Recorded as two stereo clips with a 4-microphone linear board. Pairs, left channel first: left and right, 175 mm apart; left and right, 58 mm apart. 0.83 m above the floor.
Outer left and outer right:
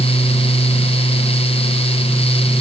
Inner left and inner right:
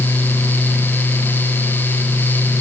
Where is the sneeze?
I don't hear a sneeze.